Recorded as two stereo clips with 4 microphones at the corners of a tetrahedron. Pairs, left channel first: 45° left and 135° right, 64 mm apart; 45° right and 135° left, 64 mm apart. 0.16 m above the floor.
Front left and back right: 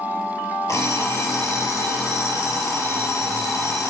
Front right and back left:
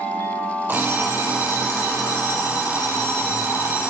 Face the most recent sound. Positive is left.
turn(degrees=80)